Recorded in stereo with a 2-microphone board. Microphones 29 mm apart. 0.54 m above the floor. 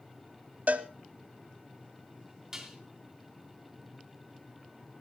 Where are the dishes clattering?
15° right (ahead or behind), 3 m.